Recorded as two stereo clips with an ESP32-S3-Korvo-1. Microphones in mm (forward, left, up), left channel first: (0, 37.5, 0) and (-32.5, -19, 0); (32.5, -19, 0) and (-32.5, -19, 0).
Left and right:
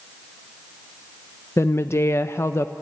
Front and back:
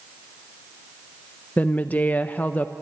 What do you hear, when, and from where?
1.6 s a woman speaking: 50° left, 0.5 m